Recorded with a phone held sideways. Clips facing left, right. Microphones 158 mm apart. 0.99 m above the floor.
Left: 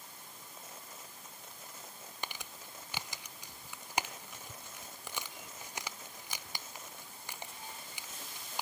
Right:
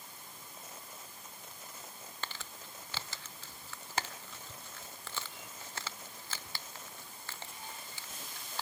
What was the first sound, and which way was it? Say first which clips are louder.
Crumpling: left 1 dB; 15° left (ahead or behind).